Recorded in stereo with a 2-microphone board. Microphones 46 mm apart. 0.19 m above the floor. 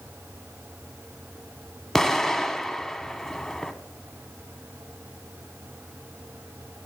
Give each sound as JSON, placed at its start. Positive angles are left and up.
{"t": 1.9, "sound": "an explosion", "side_deg": 5, "distance_m": 0.5}